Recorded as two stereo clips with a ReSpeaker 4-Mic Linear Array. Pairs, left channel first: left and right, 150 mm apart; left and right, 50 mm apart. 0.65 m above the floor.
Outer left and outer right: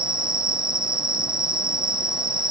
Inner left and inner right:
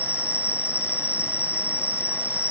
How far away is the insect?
About 0.7 m.